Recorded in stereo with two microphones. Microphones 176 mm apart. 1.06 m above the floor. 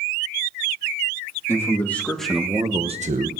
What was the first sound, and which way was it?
A man speaking, 15° left (ahead or behind).